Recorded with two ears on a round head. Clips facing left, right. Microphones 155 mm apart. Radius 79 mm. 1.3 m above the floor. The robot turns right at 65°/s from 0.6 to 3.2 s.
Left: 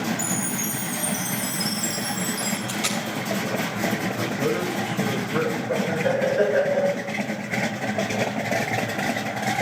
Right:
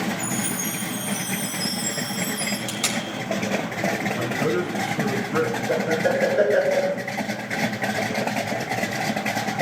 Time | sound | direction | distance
0.2 | a chime | 60° left | 7.5 m
2.7 | tape being pulled | 70° right (ahead or behind) | 4.5 m
4.2 | a man speaking | 65° right (ahead or behind) | 6.5 m
5.7 | laughter | 60° right (ahead or behind) | 5.5 m